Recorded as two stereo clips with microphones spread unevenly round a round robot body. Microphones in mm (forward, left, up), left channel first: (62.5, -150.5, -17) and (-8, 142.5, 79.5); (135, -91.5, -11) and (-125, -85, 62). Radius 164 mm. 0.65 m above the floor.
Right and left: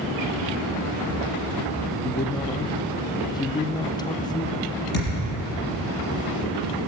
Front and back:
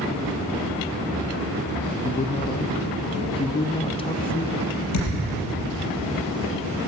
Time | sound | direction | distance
2.0 | a man speaking | 35° right | 0.6 m
4.9 | a thud | 20° right | 5.5 m